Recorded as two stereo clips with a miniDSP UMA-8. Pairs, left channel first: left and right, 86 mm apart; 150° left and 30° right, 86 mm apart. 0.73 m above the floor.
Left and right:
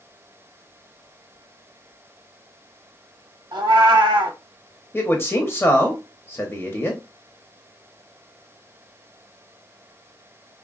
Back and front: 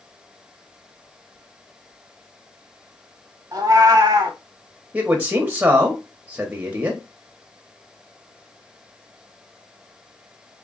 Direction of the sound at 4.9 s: 35° left.